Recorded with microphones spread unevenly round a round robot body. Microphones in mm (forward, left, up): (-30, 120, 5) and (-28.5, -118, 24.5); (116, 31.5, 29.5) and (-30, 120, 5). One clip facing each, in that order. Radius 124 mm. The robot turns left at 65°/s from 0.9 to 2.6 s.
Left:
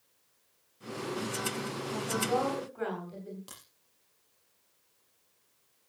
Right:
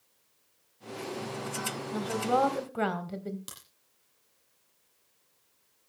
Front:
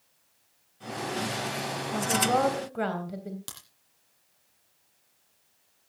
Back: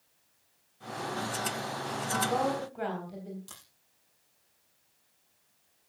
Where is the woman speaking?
35° right, 3 m; by 3.4 s 80° right, 3 m.